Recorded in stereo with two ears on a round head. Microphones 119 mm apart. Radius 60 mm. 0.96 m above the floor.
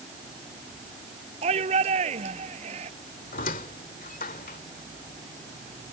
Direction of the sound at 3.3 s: 65° left (ahead or behind).